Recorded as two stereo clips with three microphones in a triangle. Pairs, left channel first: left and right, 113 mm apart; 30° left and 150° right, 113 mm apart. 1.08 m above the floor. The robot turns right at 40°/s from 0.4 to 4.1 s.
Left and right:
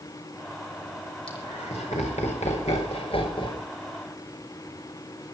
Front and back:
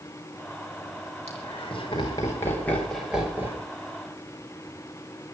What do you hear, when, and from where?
1.3 s laughter: 50° left, 6 m; by 3.6 s 145° left, 6 m